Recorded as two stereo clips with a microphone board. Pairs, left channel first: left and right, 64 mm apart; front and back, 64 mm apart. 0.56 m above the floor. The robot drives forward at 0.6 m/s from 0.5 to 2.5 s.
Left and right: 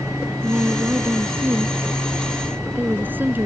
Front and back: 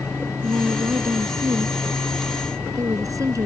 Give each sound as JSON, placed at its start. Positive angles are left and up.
{"t": 0.4, "sound": "a woman speaking", "azimuth_deg": -145}